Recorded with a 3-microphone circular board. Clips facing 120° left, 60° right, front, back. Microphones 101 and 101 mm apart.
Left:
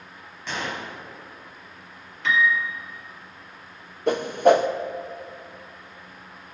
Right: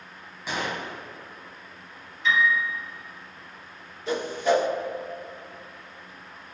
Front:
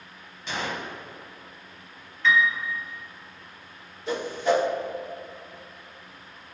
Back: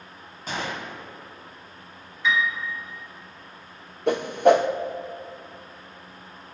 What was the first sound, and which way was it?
A gunshot, 140° right.